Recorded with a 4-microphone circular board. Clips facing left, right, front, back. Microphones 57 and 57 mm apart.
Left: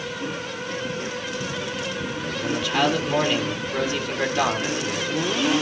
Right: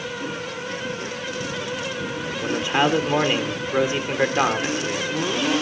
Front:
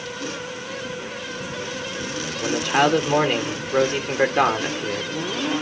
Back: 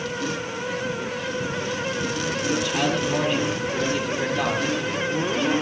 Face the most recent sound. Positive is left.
turn(degrees=-30)